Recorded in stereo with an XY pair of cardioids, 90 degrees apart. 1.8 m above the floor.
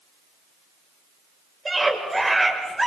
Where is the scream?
20° right, 7.5 m; by 2.9 s 10° right, 7.5 m.